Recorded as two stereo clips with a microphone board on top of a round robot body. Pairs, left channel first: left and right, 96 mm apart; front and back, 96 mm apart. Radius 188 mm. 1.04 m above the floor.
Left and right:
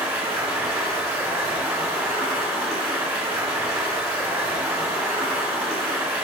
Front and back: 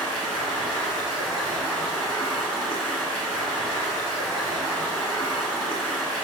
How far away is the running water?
About 1.4 m.